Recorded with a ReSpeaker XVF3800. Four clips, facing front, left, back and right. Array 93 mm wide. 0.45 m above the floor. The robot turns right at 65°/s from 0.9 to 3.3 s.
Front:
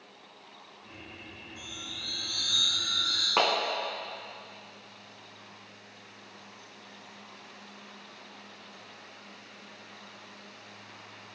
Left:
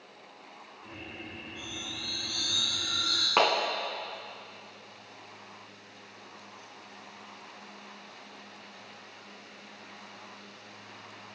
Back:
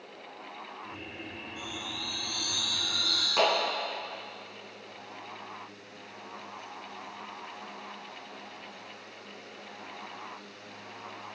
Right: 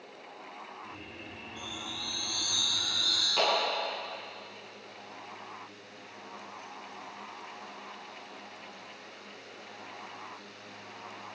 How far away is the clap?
About 3 m.